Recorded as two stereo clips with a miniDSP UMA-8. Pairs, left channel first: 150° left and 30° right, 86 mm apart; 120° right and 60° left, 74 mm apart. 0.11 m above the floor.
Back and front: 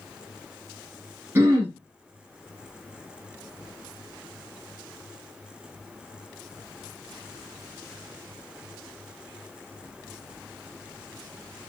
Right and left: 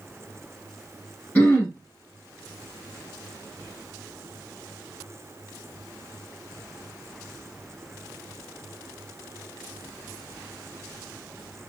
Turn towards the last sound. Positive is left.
turn(degrees=-65)